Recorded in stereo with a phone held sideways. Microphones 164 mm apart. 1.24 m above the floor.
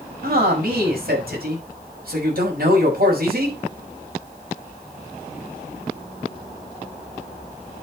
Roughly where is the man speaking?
Right.